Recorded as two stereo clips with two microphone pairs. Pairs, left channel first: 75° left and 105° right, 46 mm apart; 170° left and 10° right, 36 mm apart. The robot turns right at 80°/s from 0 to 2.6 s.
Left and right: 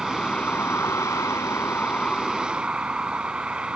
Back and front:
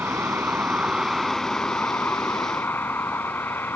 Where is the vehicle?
20° right; by 3.8 s 175° right.